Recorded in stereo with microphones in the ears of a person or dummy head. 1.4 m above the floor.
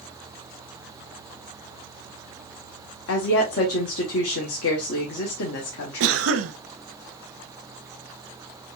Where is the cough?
70° right (ahead or behind), 0.7 m.